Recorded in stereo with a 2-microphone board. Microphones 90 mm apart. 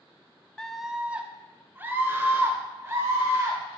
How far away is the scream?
About 0.6 m.